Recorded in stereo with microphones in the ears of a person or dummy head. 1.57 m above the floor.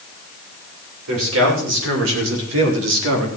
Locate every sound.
1.1 s a man speaking: 85° right, 7.5 m; by 3.3 s 80° right, 4.5 m